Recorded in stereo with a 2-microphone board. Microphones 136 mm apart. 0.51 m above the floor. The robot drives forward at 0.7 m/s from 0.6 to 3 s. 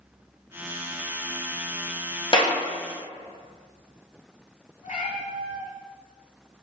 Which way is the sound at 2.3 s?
40° left (ahead or behind).